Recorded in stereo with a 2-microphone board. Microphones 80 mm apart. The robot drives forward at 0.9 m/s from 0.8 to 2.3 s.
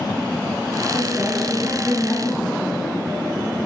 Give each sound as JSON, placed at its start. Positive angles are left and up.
{"t": 0.9, "sound": "a woman speaking", "side_deg": -20, "distance_m": 1.1}